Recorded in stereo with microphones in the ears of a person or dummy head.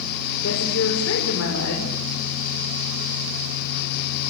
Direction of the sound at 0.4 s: 75° left (ahead or behind).